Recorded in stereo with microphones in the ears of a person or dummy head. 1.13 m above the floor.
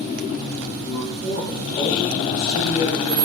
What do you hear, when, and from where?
0.8 s a man speaking: 20° left (ahead or behind), 2 m